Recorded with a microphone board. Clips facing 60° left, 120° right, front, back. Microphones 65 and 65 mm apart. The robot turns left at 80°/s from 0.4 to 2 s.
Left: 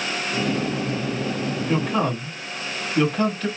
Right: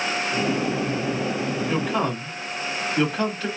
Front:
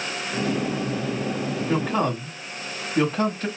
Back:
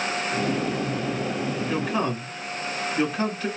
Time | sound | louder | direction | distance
1.7 | a man speaking | left 3 dB, front 4 dB | 10° right | 1.9 m